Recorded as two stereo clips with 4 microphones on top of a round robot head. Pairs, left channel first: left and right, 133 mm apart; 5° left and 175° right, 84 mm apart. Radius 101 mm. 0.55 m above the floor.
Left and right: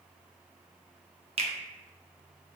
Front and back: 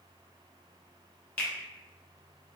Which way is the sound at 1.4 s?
70° right.